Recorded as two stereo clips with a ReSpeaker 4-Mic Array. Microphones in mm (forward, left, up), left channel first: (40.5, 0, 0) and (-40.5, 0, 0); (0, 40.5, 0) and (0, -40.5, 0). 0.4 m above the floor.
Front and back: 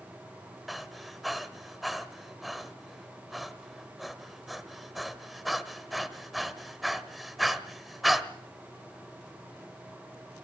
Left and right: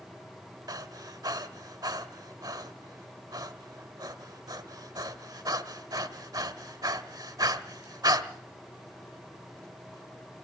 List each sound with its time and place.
0.7 s breathing: 90° right, 1.3 m